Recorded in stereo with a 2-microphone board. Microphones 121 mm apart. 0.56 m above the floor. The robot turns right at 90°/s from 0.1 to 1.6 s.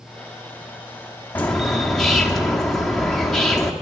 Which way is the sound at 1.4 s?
15° left (ahead or behind).